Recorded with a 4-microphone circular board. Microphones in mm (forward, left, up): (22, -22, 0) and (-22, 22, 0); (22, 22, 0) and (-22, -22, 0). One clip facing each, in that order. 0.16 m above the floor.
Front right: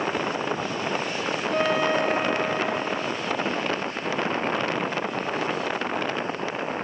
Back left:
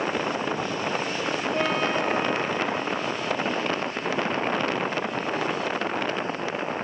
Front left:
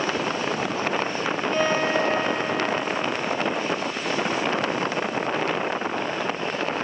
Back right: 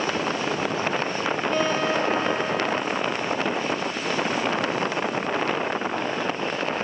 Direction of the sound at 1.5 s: 40° right.